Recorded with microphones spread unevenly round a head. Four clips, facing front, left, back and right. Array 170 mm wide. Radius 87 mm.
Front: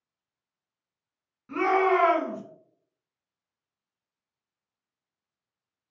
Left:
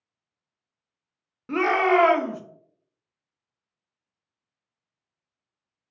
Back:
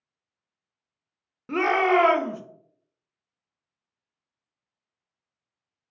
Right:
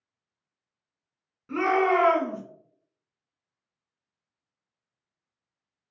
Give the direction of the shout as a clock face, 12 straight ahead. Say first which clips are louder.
Left 2 dB, back 1 dB; 7 o'clock.